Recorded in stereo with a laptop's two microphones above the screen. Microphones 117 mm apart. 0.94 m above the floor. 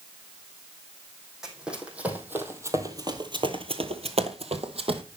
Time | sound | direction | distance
1.4 | running footsteps | 5° right (ahead or behind) | 3 m